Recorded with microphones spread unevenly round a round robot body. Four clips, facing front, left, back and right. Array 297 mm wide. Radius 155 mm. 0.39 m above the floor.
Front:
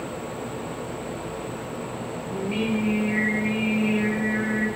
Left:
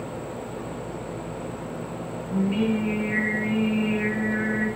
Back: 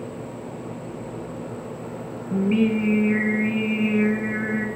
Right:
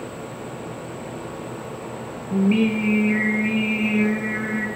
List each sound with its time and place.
2.3 s singing: 140° right, 3.5 m